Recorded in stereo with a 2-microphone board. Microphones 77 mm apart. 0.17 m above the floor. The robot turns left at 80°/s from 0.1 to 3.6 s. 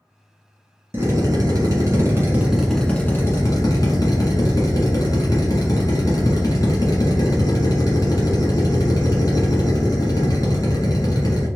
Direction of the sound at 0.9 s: 40° right.